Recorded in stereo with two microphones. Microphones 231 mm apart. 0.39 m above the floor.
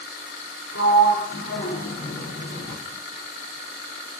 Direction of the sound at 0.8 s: 65° left (ahead or behind).